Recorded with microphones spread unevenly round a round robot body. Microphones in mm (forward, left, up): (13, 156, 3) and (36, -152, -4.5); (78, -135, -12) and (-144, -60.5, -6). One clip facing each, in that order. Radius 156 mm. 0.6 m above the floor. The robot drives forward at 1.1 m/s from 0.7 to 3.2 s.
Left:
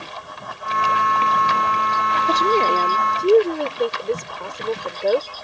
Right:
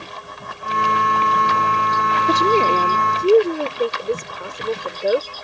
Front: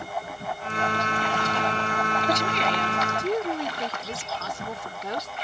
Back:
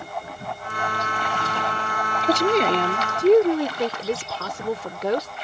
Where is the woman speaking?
150° right; by 5.3 s 170° right.